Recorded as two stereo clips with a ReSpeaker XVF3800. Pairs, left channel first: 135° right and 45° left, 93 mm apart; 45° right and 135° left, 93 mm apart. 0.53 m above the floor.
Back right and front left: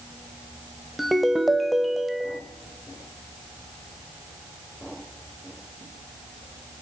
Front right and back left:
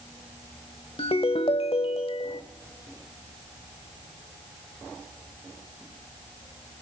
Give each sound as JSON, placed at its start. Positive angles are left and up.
{"t": 1.0, "sound": "a ringtone", "azimuth_deg": -45, "distance_m": 1.1}